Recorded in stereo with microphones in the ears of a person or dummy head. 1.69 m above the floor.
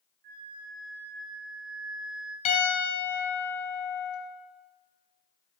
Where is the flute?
60° right (ahead or behind), 1.2 m.